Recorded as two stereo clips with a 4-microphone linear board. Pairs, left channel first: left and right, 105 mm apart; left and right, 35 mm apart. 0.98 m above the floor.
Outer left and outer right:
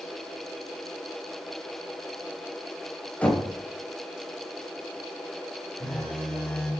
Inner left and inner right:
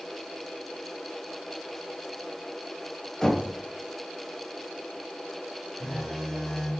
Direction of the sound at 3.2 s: 15° left (ahead or behind).